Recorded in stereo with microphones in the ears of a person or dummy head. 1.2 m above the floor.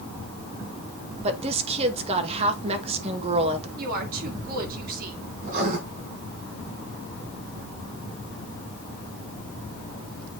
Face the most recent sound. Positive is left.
turn(degrees=-50)  # may be behind; listen again after turning